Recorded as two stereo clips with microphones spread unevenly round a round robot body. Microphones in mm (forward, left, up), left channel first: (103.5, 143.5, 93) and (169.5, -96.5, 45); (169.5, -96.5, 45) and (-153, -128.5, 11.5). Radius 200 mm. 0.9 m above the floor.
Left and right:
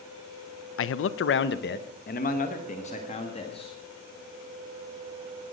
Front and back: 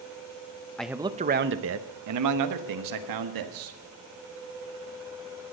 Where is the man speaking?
100° left, 0.6 m; by 3.8 s straight behind, 1.8 m.